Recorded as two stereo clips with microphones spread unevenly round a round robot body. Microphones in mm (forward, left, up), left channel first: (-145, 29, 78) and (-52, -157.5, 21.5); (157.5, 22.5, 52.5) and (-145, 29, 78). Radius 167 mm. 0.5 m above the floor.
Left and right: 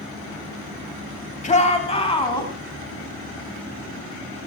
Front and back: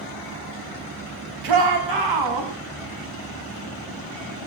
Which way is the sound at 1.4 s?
175° left.